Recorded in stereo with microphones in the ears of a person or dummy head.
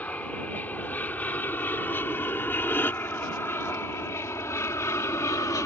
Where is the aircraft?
10° left (ahead or behind); by 5.7 s 15° left (ahead or behind).